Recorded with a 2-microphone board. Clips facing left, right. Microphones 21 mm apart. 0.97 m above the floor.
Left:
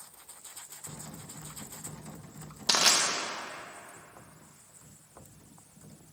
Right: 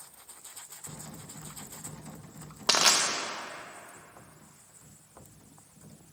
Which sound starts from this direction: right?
Crushing, at 2.7 s.